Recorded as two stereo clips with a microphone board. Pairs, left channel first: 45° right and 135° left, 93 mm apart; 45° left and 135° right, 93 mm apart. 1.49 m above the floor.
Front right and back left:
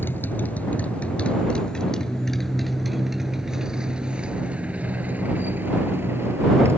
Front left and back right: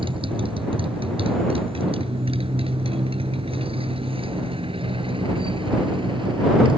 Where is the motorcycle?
110° right; by 6.8 s 165° right.